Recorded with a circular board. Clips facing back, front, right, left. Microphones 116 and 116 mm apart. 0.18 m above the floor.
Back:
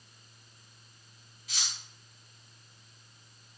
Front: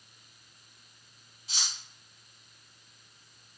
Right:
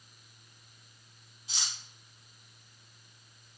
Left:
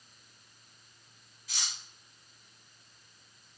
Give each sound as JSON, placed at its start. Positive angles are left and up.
{"t": 1.5, "sound": "cutlery clinking", "azimuth_deg": -40, "distance_m": 0.8}